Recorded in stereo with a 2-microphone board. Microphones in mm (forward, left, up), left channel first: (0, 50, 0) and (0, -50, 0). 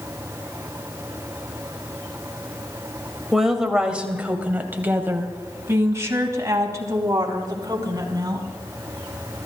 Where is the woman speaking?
5° right (ahead or behind), 2 m; by 8.4 s 40° right (ahead or behind), 4 m.